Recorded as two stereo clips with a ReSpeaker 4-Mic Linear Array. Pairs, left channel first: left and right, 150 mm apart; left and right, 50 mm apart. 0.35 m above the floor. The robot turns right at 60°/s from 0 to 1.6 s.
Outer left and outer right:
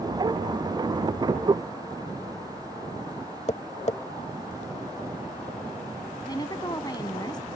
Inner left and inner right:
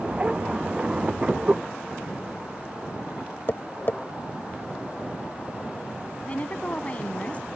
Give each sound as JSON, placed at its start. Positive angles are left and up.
{"t": 3.5, "sound": "tapping", "side_deg": 50}
{"t": 6.3, "sound": "a woman speaking", "side_deg": 30}